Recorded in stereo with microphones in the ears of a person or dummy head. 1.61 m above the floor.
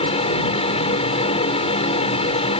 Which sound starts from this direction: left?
A fan, at 0.0 s.